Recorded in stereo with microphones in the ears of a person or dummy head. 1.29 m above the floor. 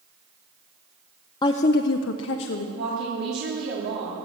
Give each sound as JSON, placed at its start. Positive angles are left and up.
{"t": 1.4, "sound": "a woman speaking", "side_deg": 25, "distance_m": 0.6}
{"t": 2.8, "sound": "a woman speaking", "side_deg": -70, "distance_m": 2.5}